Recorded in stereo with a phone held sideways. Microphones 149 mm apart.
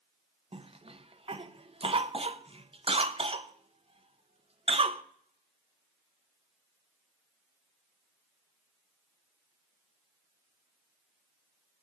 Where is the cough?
40° right (ahead or behind), 0.7 m.